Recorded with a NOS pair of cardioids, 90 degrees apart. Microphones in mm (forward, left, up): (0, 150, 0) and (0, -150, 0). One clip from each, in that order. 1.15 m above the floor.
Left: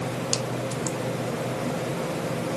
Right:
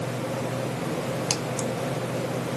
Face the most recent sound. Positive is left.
No sound to turn to.